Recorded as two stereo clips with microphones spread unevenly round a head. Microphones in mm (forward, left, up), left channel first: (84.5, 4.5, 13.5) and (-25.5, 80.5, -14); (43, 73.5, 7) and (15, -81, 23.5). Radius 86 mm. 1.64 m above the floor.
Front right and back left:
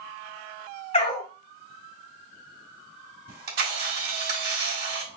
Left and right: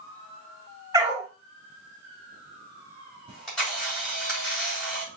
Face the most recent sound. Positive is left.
turn(degrees=170)